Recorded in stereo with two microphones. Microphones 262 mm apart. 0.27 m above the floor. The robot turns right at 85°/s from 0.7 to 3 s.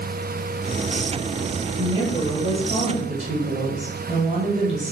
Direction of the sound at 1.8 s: 160° right.